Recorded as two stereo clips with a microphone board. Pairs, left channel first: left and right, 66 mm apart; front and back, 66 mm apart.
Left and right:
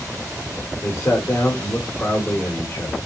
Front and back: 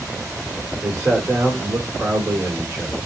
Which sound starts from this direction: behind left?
A man speaking, at 0.8 s.